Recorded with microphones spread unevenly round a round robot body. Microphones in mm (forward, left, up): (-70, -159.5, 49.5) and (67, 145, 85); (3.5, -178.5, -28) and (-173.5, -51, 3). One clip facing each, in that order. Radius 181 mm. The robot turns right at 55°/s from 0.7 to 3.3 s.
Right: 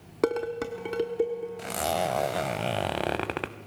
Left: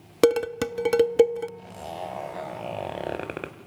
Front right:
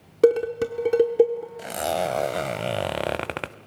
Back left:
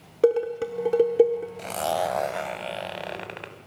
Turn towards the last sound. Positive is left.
turn(degrees=-30)